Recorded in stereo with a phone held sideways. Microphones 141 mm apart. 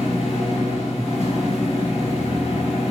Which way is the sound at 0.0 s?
45° left (ahead or behind).